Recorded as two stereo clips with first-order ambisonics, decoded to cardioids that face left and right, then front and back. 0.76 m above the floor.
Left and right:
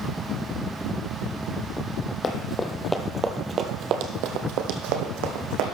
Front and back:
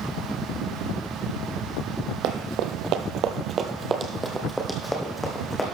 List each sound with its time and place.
2.2 s running footsteps: 155° left, 1.4 m; by 5.6 s 80° right, 2.5 m